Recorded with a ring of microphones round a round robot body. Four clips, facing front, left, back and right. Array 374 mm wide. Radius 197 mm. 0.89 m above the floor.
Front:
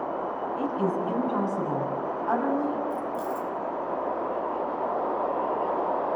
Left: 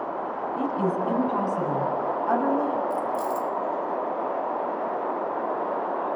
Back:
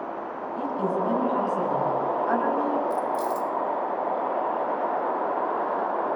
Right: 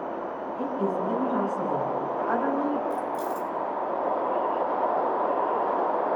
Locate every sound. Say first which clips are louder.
0.6 s a woman speaking: left 1 dB, back 2 dB; 95° left, 9 m; by 2.8 s 100° left, 7 m
2.9 s keys jangling: left 2 dB, back 4 dB; 160° left, 1.4 m